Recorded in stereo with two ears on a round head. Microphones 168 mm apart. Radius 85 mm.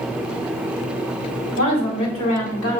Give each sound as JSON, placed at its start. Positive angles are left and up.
{"t": 1.6, "sound": "a woman speaking", "side_deg": 85, "distance_m": 4.0}